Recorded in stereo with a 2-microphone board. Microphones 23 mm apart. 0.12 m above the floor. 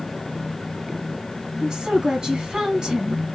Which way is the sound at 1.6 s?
35° right (ahead or behind).